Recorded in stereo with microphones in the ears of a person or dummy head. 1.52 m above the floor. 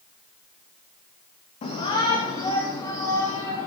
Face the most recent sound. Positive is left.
turn(degrees=10)  # may be behind; listen again after turning